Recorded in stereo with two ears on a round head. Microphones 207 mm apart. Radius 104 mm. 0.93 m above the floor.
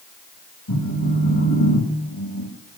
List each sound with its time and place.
0.7 s a phone buzzing: 90° left, 3.5 m